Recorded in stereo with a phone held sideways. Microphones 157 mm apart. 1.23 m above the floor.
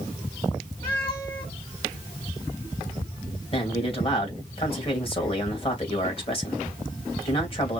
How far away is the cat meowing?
About 3 m.